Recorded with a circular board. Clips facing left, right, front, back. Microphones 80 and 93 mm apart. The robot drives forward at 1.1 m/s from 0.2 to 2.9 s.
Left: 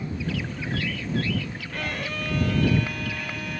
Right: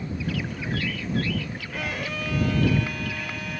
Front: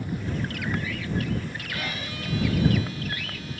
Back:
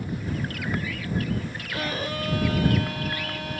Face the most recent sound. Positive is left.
turn(degrees=180)